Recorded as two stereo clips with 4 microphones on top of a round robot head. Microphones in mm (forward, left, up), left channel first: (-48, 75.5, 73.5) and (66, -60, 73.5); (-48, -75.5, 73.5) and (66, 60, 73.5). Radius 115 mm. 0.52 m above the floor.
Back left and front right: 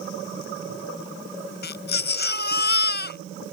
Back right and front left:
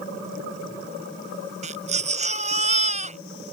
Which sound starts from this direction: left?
A baby crying, at 1.6 s.